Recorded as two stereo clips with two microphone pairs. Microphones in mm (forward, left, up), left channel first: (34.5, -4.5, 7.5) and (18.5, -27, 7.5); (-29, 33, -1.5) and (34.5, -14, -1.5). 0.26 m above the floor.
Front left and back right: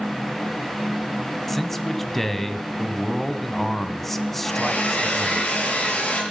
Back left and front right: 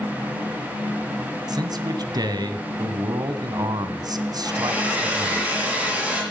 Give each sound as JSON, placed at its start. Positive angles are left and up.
{"t": 1.5, "sound": "a man speaking", "azimuth_deg": -25, "distance_m": 1.7}
{"t": 4.4, "sound": "a hair dryer", "azimuth_deg": 35, "distance_m": 7.0}